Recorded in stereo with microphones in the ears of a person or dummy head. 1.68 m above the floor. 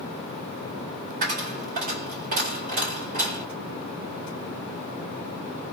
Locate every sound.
1.2 s a dropped coin: 40° right (ahead or behind), 1.5 m